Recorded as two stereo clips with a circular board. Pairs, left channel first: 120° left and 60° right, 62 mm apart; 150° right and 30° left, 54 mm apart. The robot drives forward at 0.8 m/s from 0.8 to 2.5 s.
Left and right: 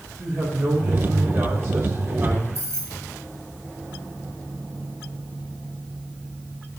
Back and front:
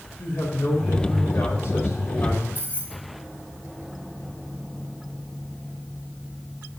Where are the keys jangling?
95° right, 1.9 m.